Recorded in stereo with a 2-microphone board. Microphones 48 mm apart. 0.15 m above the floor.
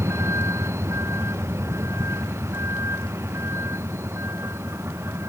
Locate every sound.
0.0 s a vehicle: 75° right (ahead or behind); by 5.3 s 65° right (ahead or behind)